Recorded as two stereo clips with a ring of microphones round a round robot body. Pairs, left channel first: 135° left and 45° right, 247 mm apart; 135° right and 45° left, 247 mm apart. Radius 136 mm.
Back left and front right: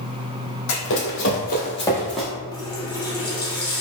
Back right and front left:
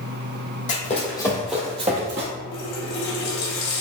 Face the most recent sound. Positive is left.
turn(degrees=-150)